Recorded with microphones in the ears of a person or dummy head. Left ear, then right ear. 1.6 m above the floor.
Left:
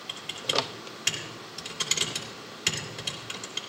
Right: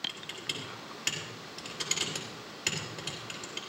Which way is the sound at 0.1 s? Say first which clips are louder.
Left 9 dB; centre (ahead or behind).